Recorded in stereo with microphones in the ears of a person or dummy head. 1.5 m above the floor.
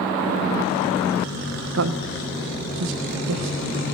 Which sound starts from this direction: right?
A man speaking, at 1.7 s.